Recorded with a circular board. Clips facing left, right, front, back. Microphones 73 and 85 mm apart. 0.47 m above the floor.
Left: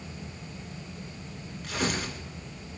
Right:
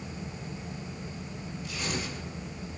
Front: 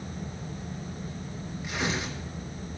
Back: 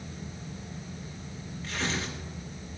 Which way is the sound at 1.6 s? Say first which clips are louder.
Left 5 dB, front 2 dB; 75° left.